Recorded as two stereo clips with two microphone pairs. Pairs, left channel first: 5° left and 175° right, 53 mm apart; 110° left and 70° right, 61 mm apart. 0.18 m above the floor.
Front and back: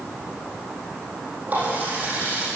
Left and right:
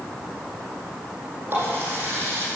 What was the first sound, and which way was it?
A running tap, 125° right.